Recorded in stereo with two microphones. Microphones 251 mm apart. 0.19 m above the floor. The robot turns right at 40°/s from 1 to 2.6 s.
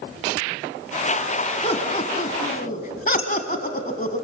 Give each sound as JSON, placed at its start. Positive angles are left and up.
{"t": 1.6, "sound": "laughter", "side_deg": 25, "distance_m": 1.2}
{"t": 3.2, "sound": "dishes clattering", "side_deg": 60, "distance_m": 4.0}